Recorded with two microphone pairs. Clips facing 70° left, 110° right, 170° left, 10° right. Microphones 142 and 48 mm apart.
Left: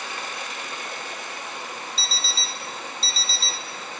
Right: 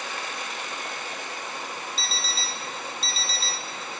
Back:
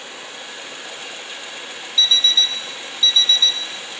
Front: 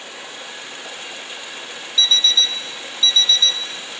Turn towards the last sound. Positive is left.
turn(degrees=-105)